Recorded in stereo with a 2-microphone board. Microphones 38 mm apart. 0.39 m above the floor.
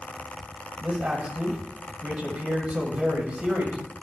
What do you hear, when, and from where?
0.8 s a man speaking: 35° right (ahead or behind), 2 m